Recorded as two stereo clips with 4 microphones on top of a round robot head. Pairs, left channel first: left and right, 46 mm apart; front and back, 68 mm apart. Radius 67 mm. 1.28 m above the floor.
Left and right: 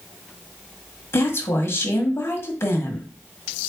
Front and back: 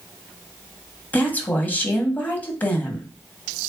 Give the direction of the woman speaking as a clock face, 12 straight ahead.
10 o'clock.